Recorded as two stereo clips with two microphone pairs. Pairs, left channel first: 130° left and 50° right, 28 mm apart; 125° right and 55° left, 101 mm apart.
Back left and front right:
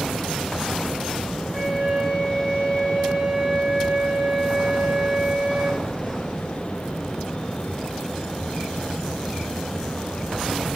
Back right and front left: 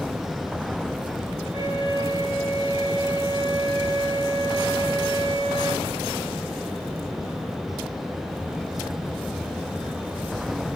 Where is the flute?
25° left, 1.9 m.